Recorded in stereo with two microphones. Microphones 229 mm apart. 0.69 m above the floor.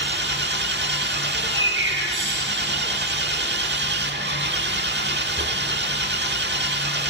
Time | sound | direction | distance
0.0 | an engine running | 50° right (ahead or behind) | 1.3 m
1.3 | a bird | 60° right (ahead or behind) | 5 m